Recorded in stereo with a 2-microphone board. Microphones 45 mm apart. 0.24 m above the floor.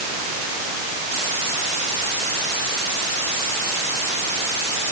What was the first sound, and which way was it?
Only background noise.